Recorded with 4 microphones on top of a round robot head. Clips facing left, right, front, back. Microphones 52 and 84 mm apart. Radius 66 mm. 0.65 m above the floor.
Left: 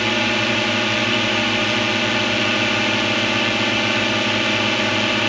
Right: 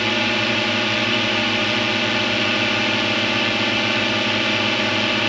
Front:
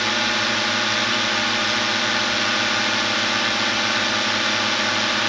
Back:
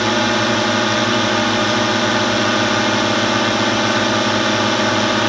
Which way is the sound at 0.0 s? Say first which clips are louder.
Left 1 dB, back 7 dB; 175° left.